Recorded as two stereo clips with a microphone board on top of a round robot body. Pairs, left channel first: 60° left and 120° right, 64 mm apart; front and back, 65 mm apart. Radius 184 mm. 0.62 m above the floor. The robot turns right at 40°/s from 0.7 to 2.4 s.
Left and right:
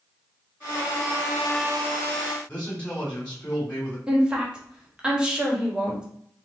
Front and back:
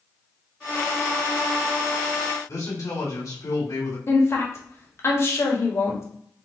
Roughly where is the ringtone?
I don't hear a ringtone.